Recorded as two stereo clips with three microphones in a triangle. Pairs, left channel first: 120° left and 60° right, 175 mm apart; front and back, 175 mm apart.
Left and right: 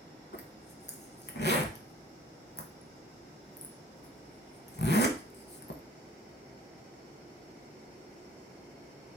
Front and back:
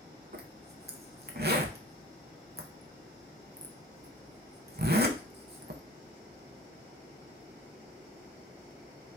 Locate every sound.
0.3 s a zipper: 145° left, 0.6 m